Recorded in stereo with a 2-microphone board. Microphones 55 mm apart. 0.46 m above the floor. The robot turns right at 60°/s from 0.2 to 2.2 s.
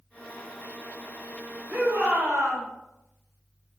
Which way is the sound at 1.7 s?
135° right.